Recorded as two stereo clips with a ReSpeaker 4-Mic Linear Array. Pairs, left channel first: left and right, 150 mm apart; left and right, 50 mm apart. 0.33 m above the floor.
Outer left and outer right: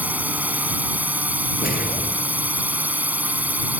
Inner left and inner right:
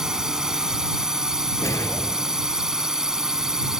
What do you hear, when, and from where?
0.0 s a drone: 10° right (ahead or behind)
1.6 s a whoosh: 80° left